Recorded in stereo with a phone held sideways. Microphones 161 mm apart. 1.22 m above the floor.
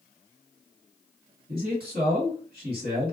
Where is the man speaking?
75° right (ahead or behind), 1.7 m.